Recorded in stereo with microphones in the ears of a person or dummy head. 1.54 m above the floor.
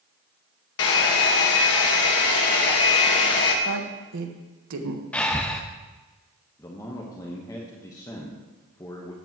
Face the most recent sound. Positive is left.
turn(degrees=15)  # may be behind; listen again after turning